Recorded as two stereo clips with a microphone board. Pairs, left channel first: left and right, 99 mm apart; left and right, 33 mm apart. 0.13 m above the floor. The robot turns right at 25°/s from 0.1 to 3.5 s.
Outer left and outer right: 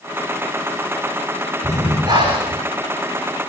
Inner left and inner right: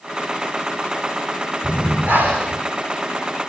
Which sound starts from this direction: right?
Breathing, at 1.6 s.